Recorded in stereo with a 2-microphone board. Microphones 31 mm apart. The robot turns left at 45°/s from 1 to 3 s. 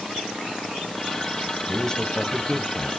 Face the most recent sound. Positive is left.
turn(degrees=15)  # may be behind; listen again after turning